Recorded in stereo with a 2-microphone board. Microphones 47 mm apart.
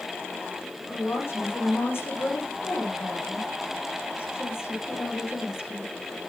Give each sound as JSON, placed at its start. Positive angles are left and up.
{"t": 0.9, "sound": "a woman speaking", "side_deg": 65, "distance_m": 9.0}